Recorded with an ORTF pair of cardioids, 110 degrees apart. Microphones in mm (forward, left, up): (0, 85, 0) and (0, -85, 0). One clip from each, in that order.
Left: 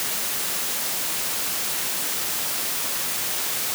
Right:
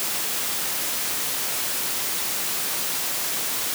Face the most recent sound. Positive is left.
No sound to turn to.